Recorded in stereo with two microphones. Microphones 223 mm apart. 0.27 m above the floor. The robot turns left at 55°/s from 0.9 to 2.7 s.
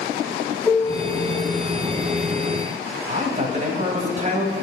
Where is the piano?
Centre (ahead or behind), 2.5 m; by 1.4 s 25° right (ahead or behind), 2.5 m.